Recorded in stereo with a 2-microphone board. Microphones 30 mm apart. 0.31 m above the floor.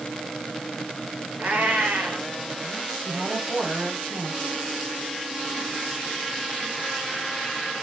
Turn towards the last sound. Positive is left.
turn(degrees=-55)  # may be behind; listen again after turning